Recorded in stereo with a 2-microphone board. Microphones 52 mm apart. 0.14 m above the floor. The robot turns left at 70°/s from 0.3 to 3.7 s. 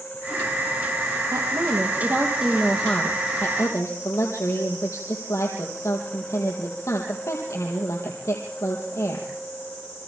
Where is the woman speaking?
85° right, 4 m; by 9.3 s 110° left, 4 m.